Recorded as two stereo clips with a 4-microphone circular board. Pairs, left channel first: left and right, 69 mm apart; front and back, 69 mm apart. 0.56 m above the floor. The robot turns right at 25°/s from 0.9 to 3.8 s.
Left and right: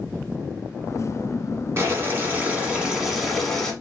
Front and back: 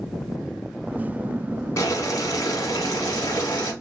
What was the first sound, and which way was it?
Boiling, 40° right.